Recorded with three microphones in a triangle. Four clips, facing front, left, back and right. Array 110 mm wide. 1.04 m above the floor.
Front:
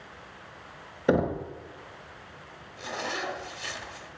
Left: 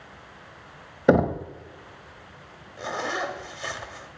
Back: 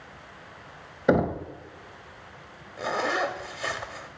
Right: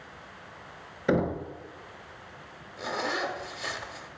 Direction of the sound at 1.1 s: 95° left.